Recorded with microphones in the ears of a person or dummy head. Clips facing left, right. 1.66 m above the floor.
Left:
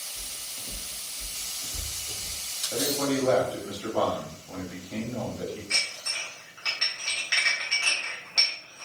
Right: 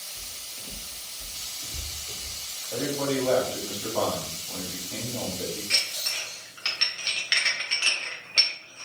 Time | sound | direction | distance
0.1 | footsteps | centre (ahead or behind) | 1.8 m
2.7 | a man speaking | 5° left (ahead or behind) | 0.9 m
5.7 | dishes clattering | 45° right (ahead or behind) | 1.0 m